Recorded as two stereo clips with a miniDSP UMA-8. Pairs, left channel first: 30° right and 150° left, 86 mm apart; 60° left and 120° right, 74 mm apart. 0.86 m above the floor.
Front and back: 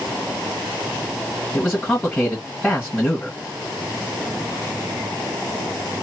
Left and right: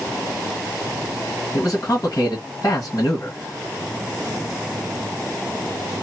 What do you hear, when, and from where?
1.5 s a man speaking: 40° left, 1.4 m